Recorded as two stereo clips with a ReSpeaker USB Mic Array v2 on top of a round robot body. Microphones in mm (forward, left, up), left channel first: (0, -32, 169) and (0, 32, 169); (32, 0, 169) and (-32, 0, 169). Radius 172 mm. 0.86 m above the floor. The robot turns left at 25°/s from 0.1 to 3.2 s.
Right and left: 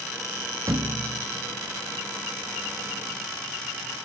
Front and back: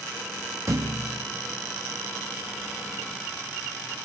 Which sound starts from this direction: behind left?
A thud, at 0.7 s.